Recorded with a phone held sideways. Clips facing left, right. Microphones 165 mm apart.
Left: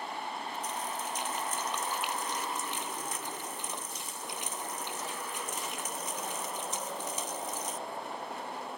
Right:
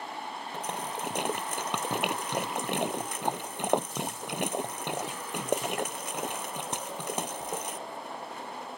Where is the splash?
65° right (ahead or behind).